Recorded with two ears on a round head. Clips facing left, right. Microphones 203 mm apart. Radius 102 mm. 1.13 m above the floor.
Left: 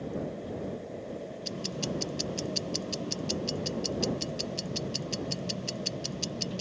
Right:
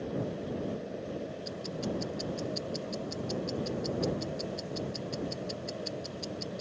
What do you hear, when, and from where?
1.4 s ticking: 40° left (ahead or behind)